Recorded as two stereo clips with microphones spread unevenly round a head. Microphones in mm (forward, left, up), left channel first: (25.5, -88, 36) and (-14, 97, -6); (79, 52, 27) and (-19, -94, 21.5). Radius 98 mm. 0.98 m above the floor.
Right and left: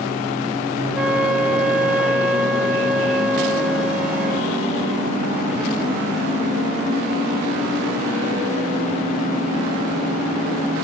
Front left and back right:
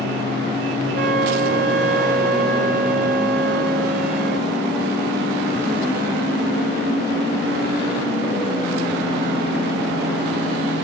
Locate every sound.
0.9 s a flute: 175° right, 1.3 m